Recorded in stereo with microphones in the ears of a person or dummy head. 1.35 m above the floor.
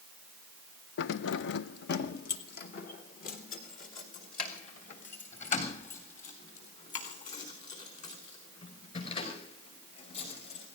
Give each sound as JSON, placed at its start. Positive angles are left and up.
{"t": 1.0, "sound": "keys jangling", "side_deg": 65, "distance_m": 0.6}